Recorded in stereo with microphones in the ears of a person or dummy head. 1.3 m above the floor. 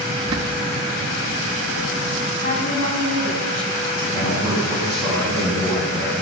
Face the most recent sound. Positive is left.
turn(degrees=15)  # may be behind; listen again after turning